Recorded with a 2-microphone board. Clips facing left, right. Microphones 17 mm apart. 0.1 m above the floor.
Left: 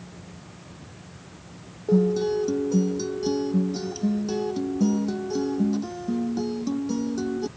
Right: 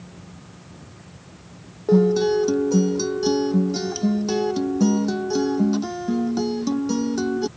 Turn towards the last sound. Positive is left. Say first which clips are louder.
# right 4 dB
turn(degrees=-30)  # may be behind; listen again after turning